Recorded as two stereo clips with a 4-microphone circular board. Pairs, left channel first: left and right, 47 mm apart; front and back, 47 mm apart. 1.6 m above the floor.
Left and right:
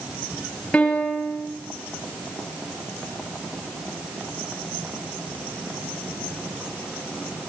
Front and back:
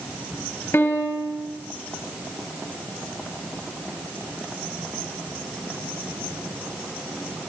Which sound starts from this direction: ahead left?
A piano, at 0.7 s.